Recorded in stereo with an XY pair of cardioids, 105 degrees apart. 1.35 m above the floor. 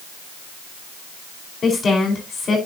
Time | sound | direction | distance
1.6 | a woman speaking | 45° left | 5 m